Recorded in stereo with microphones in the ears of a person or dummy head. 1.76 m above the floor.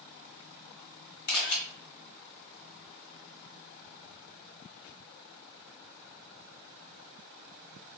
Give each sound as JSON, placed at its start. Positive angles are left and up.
{"t": 1.3, "sound": "a camera shutter", "side_deg": 50, "distance_m": 0.9}